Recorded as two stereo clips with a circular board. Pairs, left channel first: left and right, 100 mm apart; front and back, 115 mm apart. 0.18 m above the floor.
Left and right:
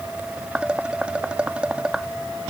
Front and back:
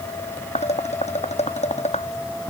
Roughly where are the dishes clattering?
Ahead.